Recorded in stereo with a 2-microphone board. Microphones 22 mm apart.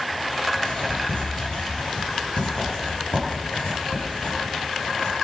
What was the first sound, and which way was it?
Writing, 90° left.